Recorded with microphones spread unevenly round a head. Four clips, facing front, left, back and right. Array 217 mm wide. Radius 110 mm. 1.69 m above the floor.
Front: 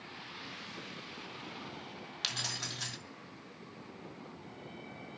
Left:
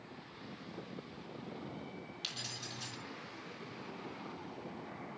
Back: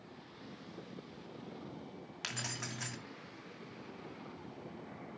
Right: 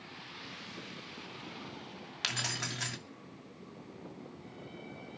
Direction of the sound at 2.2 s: 90° right.